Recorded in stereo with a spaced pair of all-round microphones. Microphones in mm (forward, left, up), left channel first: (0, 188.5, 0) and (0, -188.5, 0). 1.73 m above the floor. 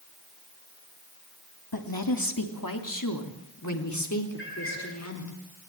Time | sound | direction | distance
1.7 | a woman speaking | 65° left (ahead or behind) | 3 m
4.4 | a cat meowing | 30° left (ahead or behind) | 6.5 m